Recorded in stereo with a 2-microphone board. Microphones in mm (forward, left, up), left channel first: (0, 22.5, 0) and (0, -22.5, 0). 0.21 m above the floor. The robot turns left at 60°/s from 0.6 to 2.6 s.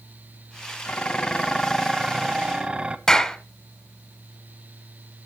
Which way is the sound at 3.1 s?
10° left (ahead or behind).